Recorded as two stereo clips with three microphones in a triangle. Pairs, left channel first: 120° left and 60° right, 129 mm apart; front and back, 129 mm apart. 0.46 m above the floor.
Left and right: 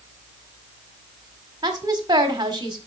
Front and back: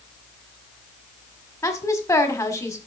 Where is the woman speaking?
40° right, 1.5 m.